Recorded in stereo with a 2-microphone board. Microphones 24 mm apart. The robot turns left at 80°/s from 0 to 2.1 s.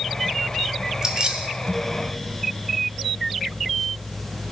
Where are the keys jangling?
25° right, 0.8 m; by 1.5 s 65° right, 0.8 m.